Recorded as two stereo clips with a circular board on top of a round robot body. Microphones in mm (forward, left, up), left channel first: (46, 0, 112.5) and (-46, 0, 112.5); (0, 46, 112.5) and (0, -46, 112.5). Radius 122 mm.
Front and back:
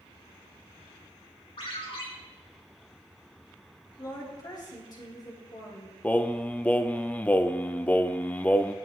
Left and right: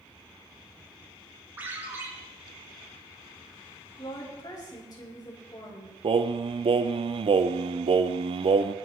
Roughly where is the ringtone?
Ahead.